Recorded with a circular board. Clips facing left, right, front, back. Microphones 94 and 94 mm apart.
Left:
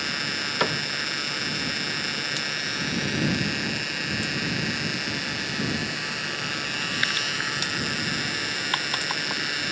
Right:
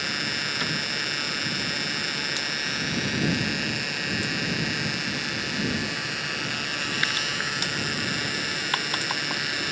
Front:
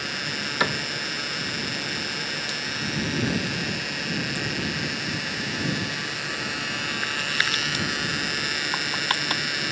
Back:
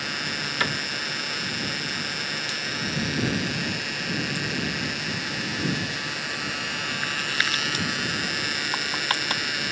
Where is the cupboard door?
70° left.